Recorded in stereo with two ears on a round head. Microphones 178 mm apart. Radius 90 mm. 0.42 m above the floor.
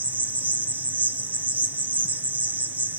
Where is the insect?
10° right (ahead or behind), 0.7 m.